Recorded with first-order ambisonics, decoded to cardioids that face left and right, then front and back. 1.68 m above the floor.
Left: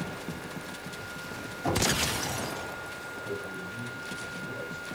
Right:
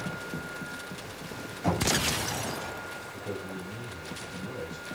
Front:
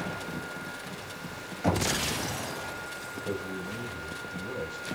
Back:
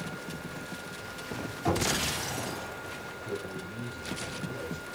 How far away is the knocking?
About 9 m.